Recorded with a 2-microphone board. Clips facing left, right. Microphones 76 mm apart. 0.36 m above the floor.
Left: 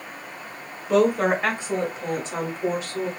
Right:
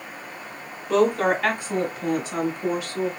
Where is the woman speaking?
5° left (ahead or behind), 1.0 m; by 3.1 s 35° left (ahead or behind), 2.5 m.